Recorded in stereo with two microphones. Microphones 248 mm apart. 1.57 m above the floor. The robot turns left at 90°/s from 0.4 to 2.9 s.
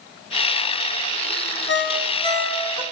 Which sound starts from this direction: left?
A ringtone, at 1.7 s.